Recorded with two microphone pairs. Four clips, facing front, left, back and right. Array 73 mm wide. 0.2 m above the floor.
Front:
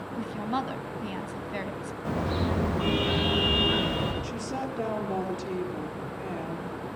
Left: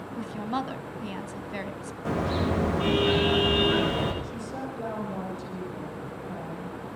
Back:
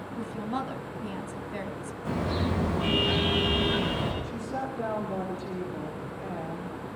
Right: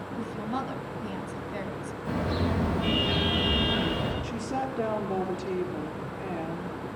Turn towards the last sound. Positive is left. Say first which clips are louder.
# right 4 dB, even
turn(degrees=-50)